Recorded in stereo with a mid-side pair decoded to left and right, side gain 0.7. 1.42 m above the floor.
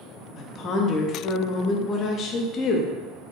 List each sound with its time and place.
0.4 s a woman speaking: 40° left, 0.5 m